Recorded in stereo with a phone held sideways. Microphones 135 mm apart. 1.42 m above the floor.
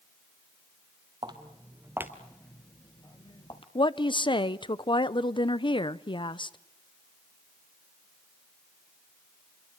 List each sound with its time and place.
1.2 s footsteps: 35° right (ahead or behind), 2 m; by 3.6 s 45° left (ahead or behind), 1.9 m
3.8 s a woman speaking: 40° left (ahead or behind), 0.7 m